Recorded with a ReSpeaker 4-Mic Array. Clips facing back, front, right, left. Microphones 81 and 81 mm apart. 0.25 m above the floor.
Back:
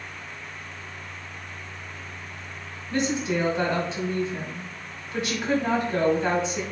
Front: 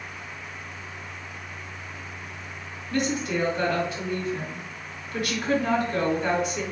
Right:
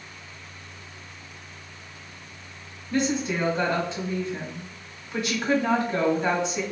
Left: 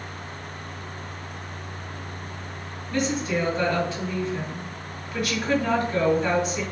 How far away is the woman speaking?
About 1.7 m.